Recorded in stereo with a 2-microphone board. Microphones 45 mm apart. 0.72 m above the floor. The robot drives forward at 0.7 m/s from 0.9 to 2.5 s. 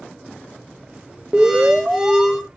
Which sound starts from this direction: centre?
An alarm, at 1.3 s.